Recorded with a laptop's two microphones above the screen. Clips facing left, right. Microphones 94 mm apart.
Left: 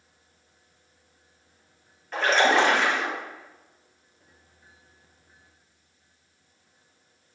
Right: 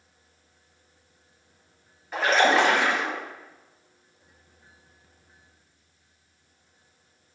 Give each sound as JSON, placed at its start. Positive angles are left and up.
{"t": 2.1, "sound": "a splash", "side_deg": -5, "distance_m": 4.0}